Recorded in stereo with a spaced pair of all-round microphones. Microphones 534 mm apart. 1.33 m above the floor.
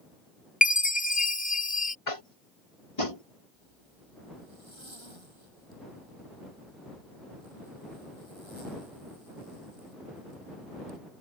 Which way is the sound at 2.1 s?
80° left.